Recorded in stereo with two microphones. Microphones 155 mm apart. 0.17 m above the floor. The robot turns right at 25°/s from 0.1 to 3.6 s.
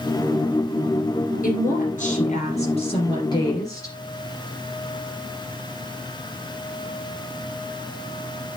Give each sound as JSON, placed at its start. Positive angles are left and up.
{"t": 1.4, "sound": "a woman speaking", "azimuth_deg": 100, "distance_m": 2.5}